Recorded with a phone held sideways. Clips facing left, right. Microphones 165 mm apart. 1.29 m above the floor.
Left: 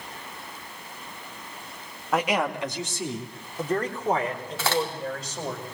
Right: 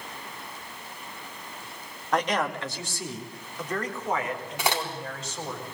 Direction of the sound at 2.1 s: 5° left (ahead or behind).